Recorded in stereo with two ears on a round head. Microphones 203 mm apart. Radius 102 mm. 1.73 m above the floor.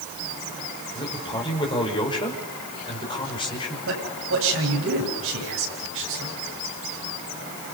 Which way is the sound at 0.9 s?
20° left (ahead or behind).